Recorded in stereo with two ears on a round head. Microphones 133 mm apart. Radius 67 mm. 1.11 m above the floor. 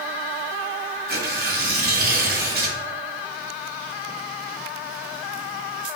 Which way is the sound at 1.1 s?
70° right (ahead or behind).